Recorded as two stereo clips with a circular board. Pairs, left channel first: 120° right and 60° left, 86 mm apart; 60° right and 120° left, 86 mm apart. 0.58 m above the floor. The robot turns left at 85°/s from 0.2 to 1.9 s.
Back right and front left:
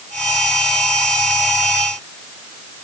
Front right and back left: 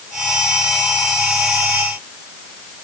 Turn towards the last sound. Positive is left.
No sound to turn to.